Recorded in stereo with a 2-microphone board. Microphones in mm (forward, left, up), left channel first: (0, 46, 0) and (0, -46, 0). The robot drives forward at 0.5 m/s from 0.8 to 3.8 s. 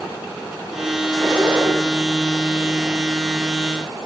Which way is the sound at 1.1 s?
10° left (ahead or behind).